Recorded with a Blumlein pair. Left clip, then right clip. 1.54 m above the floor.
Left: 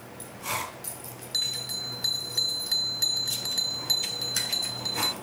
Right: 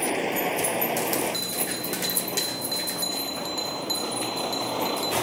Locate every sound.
0.0 s a vehicle: 50° right; by 5.2 s 55° right
1.3 s a bell: 15° left